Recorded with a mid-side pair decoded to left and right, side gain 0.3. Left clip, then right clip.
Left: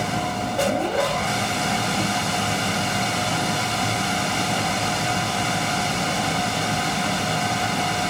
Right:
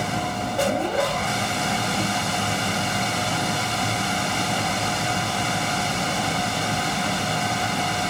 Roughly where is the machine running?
Ahead.